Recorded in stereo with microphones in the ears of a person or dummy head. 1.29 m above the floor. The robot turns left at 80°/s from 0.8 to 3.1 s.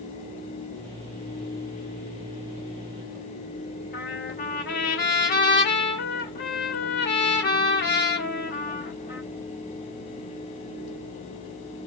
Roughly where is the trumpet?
Left.